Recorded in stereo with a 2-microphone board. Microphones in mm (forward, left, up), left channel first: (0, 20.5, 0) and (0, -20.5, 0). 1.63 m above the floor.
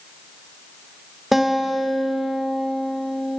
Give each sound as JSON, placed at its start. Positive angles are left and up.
{"t": 1.3, "sound": "a guitar", "side_deg": -5, "distance_m": 1.1}